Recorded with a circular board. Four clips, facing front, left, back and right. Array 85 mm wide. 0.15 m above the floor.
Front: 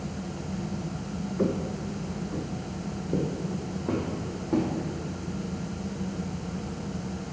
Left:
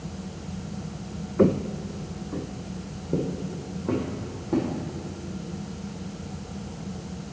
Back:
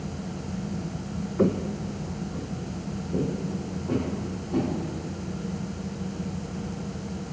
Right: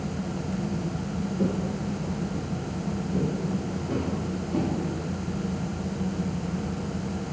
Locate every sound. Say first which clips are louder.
1.4 s footsteps: left 8 dB, back 4 dB; 105° left, 0.6 m; by 4.7 s 50° left, 5 m